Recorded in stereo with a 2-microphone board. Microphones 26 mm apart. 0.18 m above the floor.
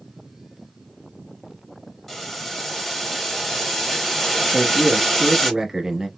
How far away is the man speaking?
About 1.0 m.